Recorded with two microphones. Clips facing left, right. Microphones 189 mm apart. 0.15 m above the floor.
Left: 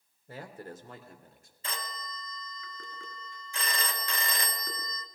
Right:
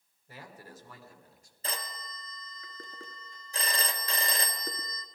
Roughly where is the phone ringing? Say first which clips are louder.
Even; right.